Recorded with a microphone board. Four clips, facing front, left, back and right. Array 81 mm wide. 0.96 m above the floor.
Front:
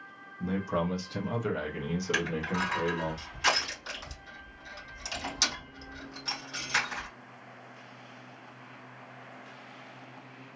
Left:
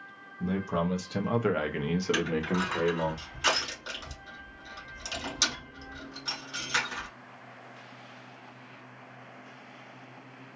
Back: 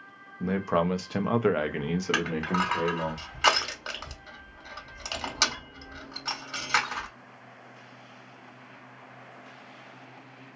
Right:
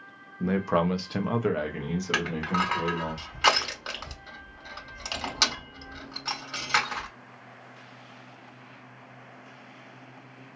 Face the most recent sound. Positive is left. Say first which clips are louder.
# right 1 dB, back 3 dB
turn(degrees=-145)